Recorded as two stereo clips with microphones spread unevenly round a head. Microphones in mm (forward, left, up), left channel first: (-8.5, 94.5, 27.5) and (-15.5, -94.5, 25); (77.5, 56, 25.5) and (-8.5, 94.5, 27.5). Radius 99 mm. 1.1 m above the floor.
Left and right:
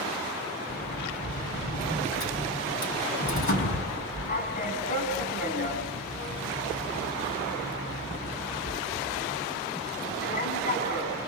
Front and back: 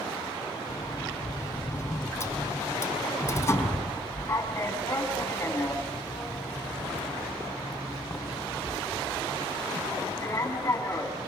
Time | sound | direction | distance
0.7 | a sliding door | 40° left | 6 m